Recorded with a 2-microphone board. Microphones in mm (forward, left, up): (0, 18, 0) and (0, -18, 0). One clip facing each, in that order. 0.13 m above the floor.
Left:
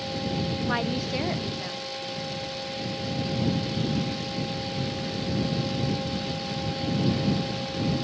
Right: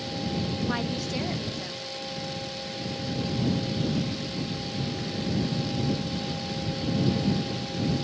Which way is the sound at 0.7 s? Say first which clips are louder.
Left 2 dB; 10° left (ahead or behind).